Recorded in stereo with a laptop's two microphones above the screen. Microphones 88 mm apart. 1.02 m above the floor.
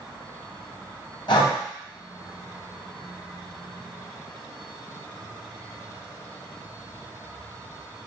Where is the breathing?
60° left (ahead or behind), 2 m.